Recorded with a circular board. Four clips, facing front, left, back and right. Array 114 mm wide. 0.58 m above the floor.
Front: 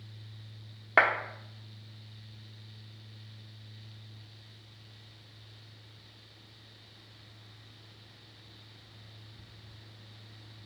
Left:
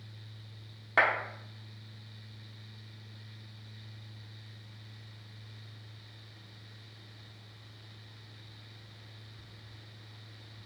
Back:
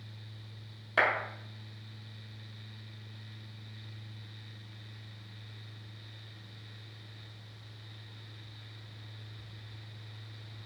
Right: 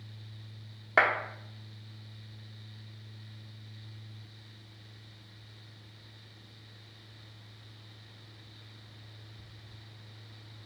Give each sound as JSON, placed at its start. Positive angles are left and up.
{"t": 1.0, "sound": "a clap", "azimuth_deg": -20, "distance_m": 0.8}